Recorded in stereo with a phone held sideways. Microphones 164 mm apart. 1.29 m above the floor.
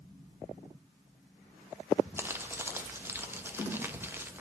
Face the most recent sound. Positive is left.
turn(degrees=-15)  # may be behind; listen again after turning